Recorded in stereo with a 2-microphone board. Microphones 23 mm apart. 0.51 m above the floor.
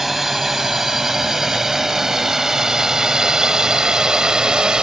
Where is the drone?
15° right (ahead or behind); by 4.8 s 35° right (ahead or behind).